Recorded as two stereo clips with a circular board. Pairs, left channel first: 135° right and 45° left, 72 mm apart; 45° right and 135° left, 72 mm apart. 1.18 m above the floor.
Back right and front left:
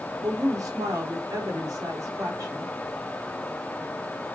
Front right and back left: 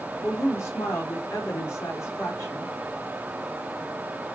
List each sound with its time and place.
0.2 s a woman speaking: 5° left, 4 m